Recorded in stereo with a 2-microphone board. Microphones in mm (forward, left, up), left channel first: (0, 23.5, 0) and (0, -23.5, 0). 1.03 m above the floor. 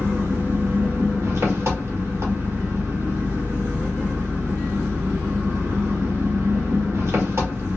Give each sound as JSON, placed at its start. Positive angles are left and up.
{"t": 0.0, "sound": "an engine running", "side_deg": -65, "distance_m": 1.2}